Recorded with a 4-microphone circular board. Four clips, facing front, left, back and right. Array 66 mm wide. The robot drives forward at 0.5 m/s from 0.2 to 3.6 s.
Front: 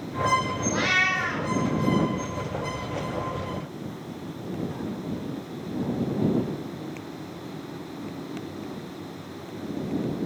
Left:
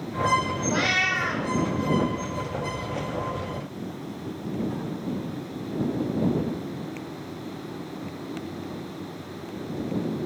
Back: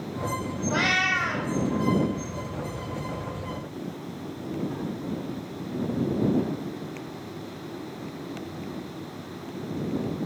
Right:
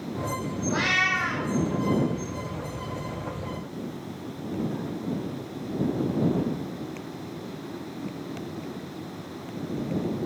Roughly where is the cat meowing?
Behind left.